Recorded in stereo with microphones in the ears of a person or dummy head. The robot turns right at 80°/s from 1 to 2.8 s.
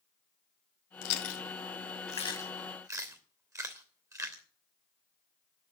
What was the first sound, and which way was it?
Chewing, 55° left (ahead or behind).